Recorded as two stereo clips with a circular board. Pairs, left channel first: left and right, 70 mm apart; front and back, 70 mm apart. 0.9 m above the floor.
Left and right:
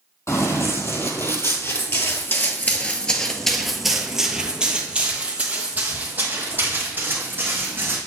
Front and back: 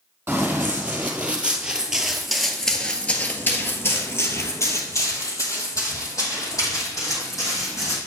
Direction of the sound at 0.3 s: 120° left.